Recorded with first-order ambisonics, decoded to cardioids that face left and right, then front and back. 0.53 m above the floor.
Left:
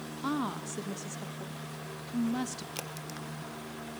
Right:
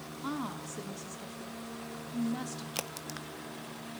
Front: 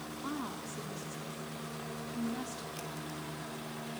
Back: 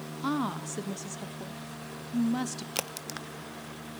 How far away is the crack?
About 0.6 m.